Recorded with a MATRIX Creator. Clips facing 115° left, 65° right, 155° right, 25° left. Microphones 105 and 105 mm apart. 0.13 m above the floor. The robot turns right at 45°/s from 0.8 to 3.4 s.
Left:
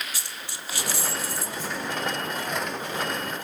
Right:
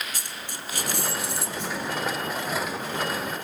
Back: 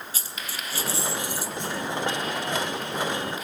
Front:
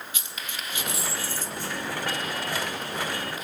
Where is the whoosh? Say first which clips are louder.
Right 1 dB, back 2 dB; 90° right, 5 m; by 1.8 s 80° right, 5 m.